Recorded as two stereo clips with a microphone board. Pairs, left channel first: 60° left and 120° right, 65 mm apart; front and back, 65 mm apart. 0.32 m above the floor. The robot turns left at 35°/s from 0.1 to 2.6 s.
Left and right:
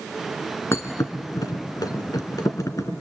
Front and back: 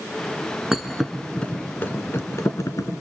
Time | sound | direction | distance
0.7 | a thud | 100° left | 1.6 m